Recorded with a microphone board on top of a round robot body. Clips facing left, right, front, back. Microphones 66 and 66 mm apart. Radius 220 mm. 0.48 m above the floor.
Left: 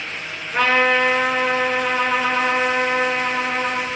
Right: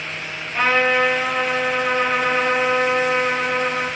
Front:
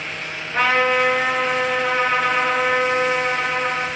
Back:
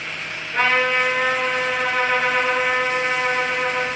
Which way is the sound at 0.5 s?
80° left.